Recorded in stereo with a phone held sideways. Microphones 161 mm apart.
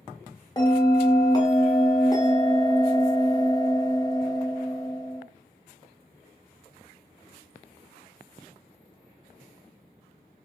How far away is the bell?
About 0.7 m.